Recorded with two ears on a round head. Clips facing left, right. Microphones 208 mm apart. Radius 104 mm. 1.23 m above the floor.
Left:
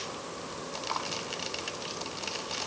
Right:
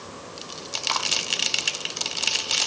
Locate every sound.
Only background noise.